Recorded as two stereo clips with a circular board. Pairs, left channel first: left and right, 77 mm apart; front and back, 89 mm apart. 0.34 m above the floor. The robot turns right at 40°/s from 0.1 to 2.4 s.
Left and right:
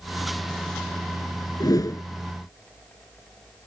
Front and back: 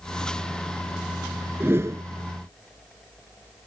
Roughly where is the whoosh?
Behind left.